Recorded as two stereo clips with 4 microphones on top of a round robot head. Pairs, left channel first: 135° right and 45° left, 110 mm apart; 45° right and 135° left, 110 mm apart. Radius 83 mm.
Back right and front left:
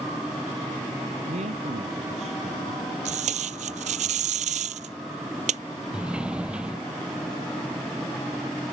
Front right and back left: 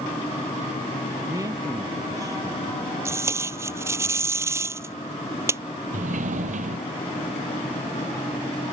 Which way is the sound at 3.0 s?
70° left.